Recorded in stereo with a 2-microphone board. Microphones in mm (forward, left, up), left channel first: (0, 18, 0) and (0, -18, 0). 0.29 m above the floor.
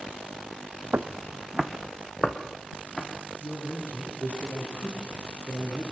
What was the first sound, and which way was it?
Footsteps, 70° right (ahead or behind).